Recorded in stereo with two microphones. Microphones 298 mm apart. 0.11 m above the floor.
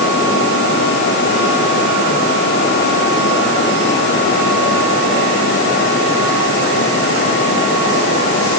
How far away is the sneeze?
I don't hear a sneeze.